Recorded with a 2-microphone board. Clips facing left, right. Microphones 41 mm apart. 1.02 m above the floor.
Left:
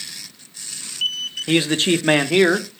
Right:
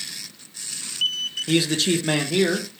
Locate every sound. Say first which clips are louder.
1.5 s a man speaking: left 3 dB; 35° left (ahead or behind), 0.9 m; by 2.7 s 50° left (ahead or behind), 0.9 m